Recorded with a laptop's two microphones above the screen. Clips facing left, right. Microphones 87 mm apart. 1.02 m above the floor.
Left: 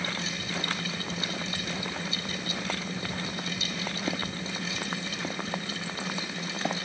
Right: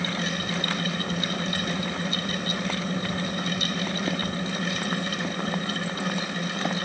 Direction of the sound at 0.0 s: 55° right (ahead or behind).